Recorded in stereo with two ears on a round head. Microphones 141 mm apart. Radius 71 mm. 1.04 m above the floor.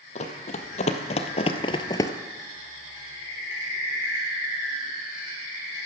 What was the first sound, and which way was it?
Running footsteps, 45° left (ahead or behind).